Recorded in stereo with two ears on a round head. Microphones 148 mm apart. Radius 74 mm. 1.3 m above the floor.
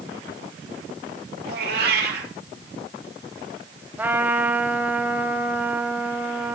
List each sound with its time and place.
1.4 s a cat meowing: 65° right (ahead or behind), 5.5 m
4.0 s a trumpet: 10° right (ahead or behind), 1.9 m